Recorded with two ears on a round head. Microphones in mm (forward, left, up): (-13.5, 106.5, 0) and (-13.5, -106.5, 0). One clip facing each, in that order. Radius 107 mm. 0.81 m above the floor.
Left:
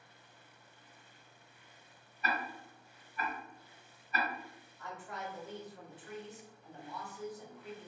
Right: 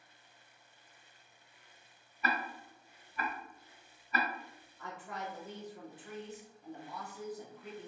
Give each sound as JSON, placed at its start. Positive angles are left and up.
{"t": 2.2, "sound": "ticking", "side_deg": -60, "distance_m": 1.3}
{"t": 4.8, "sound": "a woman speaking", "side_deg": -35, "distance_m": 1.3}